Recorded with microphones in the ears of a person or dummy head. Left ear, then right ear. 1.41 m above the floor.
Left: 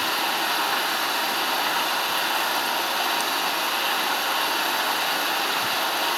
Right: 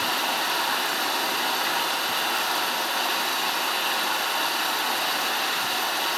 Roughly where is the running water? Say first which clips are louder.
Left 1 dB; centre.